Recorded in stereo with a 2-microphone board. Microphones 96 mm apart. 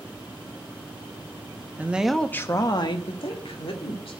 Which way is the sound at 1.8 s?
20° right (ahead or behind).